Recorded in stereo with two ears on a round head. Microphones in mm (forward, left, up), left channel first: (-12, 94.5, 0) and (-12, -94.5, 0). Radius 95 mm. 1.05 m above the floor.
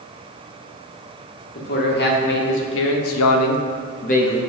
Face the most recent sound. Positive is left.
turn(degrees=25)  # may be behind; listen again after turning